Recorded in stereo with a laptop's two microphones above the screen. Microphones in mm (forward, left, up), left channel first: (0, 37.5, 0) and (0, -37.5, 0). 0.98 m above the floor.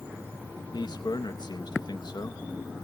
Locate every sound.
0.7 s a man speaking: 70° left (ahead or behind), 0.7 m